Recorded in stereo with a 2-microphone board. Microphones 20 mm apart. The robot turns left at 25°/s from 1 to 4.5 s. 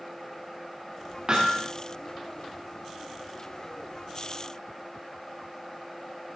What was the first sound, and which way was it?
Hammering, 45° right (ahead or behind).